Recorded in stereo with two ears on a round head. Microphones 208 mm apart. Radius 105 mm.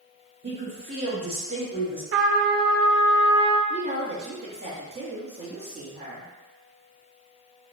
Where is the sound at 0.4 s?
25° right (ahead or behind), 1.2 m.